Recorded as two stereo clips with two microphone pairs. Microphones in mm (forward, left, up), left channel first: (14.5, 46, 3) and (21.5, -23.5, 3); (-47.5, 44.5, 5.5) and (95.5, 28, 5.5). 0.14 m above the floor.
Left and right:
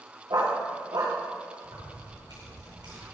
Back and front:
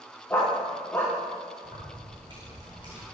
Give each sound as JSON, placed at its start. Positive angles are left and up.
{"t": 0.3, "sound": "a dog barking", "azimuth_deg": -110, "distance_m": 4.5}
{"t": 1.6, "sound": "keys jangling", "azimuth_deg": -65, "distance_m": 8.5}